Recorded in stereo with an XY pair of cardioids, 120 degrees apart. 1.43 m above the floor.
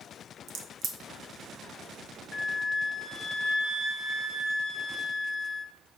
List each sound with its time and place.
0.5 s a crack: 60° right, 0.9 m
2.3 s a flute: 20° left, 0.6 m